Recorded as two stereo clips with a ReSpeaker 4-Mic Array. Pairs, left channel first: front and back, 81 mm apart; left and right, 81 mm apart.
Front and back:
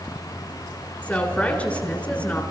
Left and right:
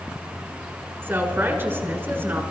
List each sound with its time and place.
1.0 s a woman speaking: 55° right, 1.4 m